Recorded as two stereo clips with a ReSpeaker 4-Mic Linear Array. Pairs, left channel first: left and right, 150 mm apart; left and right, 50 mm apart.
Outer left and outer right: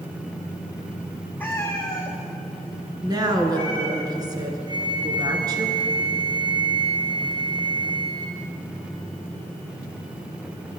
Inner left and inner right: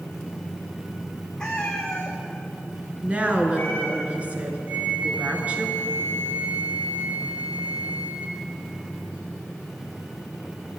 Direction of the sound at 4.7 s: 30° right (ahead or behind).